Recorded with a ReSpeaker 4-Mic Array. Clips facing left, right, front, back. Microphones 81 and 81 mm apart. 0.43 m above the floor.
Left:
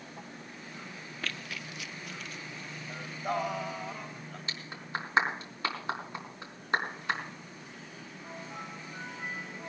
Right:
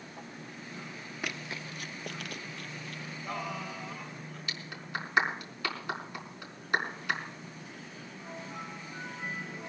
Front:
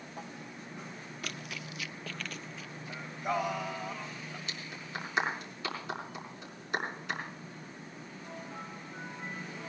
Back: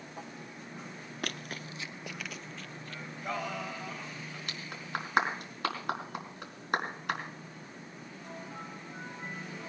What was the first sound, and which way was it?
Running footsteps, 165° right.